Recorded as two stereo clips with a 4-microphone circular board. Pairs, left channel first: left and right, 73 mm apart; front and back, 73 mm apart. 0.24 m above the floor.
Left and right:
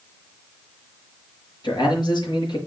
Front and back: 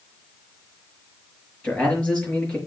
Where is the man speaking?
75° left, 5 m.